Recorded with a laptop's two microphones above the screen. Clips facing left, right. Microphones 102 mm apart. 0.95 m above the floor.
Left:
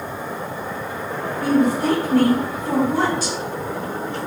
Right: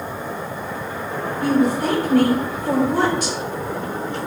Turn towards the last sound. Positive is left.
turn(degrees=-60)  # may be behind; listen again after turning